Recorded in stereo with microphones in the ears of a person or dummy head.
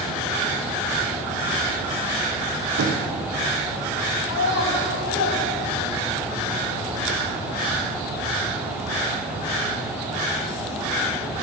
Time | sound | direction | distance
2.8 | knocking | 60° right (ahead or behind) | 1.2 m
4.2 | a child speaking | 60° left (ahead or behind) | 4.5 m